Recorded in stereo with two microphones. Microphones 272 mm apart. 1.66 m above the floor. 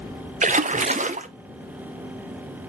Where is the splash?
30° right (ahead or behind), 0.5 m.